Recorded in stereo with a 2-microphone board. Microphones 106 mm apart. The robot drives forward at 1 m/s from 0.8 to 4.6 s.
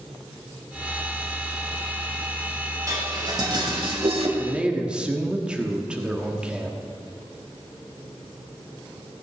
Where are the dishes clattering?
35° right (ahead or behind), 2.5 m; by 4.3 s 65° right (ahead or behind), 1.7 m.